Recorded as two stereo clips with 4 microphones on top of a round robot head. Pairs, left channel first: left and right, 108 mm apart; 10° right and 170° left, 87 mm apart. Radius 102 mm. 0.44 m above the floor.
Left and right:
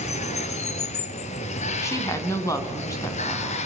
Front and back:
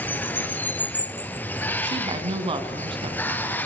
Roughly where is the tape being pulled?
I don't hear tape being pulled.